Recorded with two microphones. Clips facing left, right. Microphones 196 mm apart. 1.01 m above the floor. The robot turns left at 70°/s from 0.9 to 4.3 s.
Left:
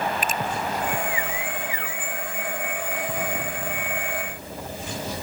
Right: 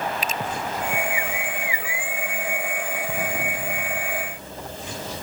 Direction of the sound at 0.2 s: 50° left (ahead or behind).